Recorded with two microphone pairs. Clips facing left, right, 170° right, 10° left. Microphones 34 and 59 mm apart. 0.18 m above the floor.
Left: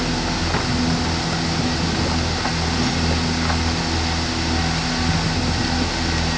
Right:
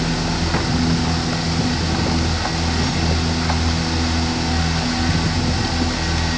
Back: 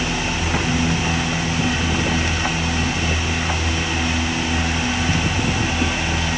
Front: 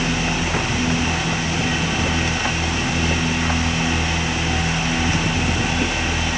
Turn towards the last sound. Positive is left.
No sound to turn to.